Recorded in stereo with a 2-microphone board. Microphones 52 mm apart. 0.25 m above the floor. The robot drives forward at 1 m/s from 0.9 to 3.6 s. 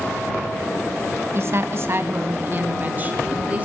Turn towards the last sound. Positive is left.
turn(degrees=-25)  # may be behind; listen again after turning